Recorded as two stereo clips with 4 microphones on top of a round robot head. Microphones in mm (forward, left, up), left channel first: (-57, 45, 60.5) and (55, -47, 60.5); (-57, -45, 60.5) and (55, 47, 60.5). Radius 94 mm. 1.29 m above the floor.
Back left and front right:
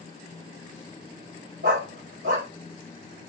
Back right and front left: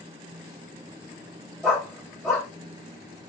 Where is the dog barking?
60° right, 1.2 m.